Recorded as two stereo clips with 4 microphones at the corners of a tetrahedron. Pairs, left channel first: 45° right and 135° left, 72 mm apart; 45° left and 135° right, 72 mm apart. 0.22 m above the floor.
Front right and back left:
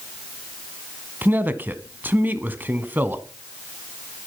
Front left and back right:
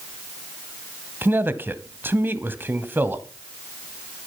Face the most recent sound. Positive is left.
turn(degrees=180)